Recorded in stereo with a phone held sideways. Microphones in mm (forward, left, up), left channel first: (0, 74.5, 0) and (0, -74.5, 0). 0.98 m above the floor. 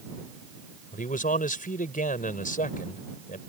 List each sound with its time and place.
0.9 s a man speaking: 70° left (ahead or behind)